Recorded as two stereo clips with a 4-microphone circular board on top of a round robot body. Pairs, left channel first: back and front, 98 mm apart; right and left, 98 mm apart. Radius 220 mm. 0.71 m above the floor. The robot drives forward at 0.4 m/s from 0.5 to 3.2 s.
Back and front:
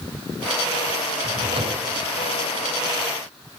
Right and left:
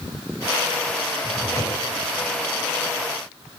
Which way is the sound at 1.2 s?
25° right.